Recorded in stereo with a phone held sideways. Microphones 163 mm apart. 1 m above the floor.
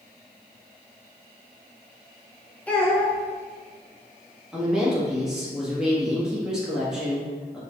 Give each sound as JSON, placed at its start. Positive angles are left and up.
{"t": 2.7, "sound": "a child speaking", "side_deg": 10, "distance_m": 1.3}
{"t": 4.5, "sound": "a woman speaking", "side_deg": -5, "distance_m": 1.1}